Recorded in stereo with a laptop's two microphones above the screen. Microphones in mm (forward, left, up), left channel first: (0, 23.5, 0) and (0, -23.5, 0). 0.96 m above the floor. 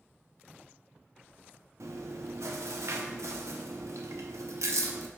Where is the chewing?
80° right, 0.7 m.